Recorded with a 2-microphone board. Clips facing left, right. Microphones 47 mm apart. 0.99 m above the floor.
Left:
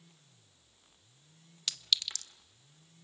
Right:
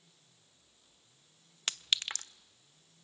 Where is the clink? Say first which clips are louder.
Right 1 dB; 40° right (ahead or behind), 0.5 m.